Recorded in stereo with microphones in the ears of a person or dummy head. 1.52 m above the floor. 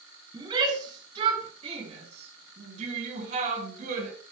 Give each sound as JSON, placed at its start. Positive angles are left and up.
{"t": 0.3, "sound": "a shout", "side_deg": -25, "distance_m": 6.5}